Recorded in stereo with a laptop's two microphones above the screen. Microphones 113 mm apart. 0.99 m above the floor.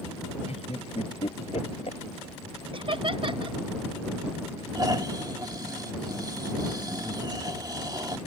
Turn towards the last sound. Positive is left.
turn(degrees=-35)  # may be behind; listen again after turning